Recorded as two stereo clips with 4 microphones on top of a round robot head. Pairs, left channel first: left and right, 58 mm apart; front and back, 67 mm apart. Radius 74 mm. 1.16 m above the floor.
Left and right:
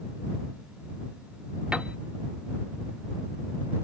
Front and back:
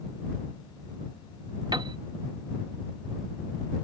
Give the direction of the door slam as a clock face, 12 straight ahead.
No door slam in this recording.